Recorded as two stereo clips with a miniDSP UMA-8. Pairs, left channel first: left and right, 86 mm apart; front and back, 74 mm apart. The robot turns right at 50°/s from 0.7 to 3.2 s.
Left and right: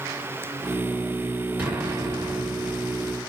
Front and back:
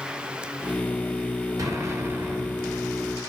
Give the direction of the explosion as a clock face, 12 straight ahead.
5 o'clock.